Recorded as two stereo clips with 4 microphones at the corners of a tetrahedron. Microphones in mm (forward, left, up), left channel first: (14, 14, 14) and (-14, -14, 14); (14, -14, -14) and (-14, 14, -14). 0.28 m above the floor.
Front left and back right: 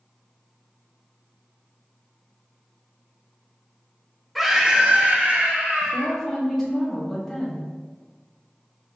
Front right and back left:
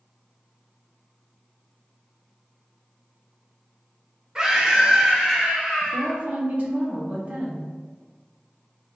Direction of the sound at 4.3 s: 145° left.